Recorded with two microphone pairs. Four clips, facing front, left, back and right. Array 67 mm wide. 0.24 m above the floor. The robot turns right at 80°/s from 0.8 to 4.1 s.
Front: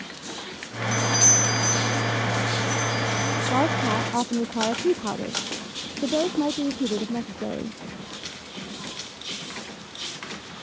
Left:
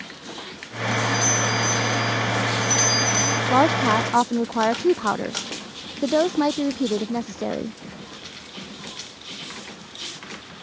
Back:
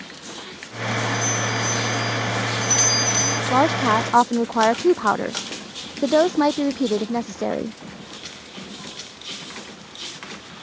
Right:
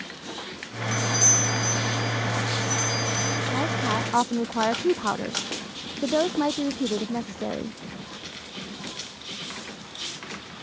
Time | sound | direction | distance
0.9 | a doorbell | straight ahead | ?
3.5 | a woman speaking | 120° left | ?